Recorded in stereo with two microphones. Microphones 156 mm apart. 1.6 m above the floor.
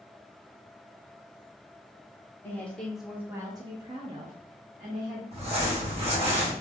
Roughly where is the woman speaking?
Centre.